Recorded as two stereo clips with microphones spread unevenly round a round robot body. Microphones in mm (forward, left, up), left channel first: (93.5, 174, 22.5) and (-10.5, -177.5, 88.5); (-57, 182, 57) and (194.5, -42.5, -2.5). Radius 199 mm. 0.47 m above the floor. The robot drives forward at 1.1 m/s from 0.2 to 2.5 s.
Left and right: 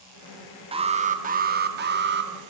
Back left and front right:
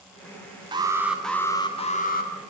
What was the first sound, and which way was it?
An alarm, 25° right.